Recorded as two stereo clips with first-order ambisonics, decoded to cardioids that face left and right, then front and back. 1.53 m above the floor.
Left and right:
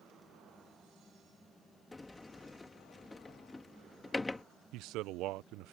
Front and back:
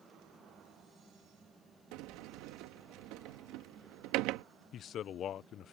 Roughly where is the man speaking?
Ahead right.